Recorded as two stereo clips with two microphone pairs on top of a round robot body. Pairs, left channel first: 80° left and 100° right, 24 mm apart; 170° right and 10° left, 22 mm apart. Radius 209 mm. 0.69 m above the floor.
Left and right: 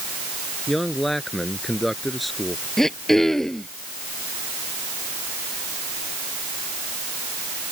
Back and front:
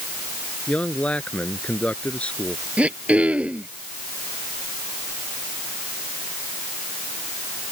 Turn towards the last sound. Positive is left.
turn(degrees=10)